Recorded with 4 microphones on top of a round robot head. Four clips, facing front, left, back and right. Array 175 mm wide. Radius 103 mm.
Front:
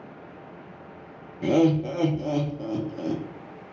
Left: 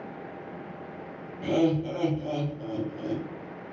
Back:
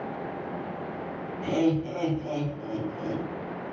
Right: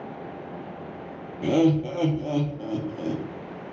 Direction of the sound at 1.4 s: 35° right.